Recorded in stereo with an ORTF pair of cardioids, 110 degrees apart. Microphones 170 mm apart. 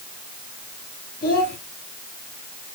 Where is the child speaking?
60° left, 5.5 m.